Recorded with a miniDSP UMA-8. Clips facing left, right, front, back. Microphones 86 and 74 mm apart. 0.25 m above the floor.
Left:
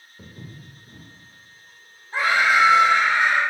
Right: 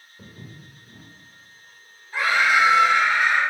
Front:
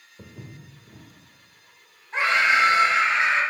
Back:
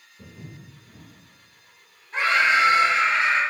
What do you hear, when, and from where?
0.2 s footsteps: 5° left, 1.3 m
2.1 s a scream: 50° left, 1.4 m